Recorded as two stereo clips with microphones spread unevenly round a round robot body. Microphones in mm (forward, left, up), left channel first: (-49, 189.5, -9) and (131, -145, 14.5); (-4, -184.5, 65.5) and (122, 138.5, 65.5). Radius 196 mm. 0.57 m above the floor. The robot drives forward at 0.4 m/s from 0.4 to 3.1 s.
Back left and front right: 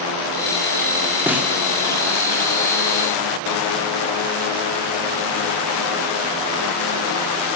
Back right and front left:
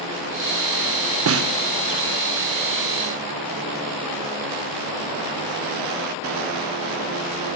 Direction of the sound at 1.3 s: 25° left.